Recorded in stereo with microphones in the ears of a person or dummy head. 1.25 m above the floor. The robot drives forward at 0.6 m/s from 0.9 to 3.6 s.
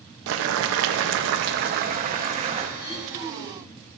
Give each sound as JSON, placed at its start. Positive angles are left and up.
{"t": 0.3, "sound": "boiling", "side_deg": -75, "distance_m": 0.8}
{"t": 2.8, "sound": "throat clearing", "side_deg": 50, "distance_m": 4.0}